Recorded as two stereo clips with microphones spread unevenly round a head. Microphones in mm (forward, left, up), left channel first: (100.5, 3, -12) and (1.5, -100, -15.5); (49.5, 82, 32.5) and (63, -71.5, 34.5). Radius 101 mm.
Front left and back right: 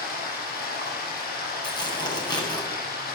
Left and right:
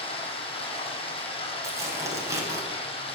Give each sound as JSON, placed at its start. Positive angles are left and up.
{"t": 0.0, "sound": "running water", "azimuth_deg": 40, "distance_m": 8.0}
{"t": 1.6, "sound": "tearing paper", "azimuth_deg": -15, "distance_m": 9.0}